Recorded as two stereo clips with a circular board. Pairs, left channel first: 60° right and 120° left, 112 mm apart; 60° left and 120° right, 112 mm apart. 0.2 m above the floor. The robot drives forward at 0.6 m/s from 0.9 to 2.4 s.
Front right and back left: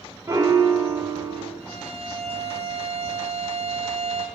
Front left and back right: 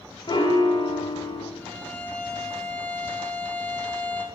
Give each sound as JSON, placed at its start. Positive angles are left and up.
{"t": 0.3, "sound": "a piano", "azimuth_deg": 70, "distance_m": 1.2}
{"t": 1.6, "sound": "a violin", "azimuth_deg": 130, "distance_m": 2.0}